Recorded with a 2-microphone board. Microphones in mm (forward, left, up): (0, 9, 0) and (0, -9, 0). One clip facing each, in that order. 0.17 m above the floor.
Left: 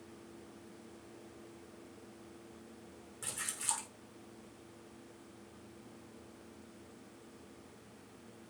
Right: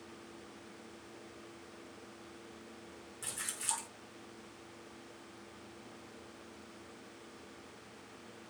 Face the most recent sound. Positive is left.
turn(degrees=0)  # may be behind; listen again after turning